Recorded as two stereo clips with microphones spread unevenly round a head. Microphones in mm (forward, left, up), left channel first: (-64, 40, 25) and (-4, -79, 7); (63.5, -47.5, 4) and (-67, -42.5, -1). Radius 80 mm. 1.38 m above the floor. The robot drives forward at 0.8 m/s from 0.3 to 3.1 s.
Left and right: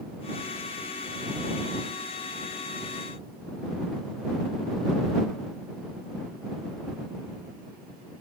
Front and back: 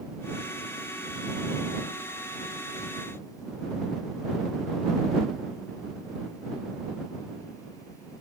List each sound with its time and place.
Only background noise.